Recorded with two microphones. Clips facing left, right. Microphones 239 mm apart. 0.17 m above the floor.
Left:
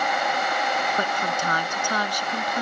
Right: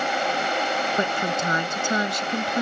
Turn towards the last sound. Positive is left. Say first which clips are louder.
# right 3 dB
turn(degrees=-25)  # may be behind; listen again after turning